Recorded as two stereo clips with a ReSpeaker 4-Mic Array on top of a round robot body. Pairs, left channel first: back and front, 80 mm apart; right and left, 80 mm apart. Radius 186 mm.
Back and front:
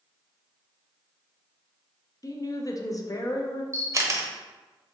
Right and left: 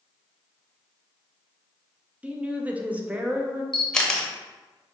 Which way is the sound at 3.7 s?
10° right.